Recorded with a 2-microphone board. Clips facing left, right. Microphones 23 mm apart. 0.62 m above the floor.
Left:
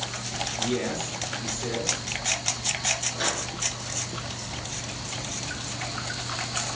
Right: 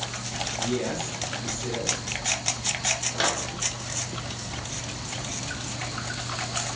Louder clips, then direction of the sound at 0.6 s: Even; 50° left (ahead or behind).